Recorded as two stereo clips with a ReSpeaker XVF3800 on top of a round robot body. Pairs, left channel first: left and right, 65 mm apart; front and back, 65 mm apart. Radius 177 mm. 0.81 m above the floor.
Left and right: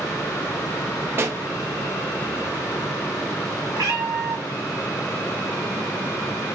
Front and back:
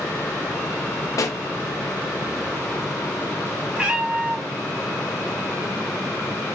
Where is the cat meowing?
110° right, 2 m.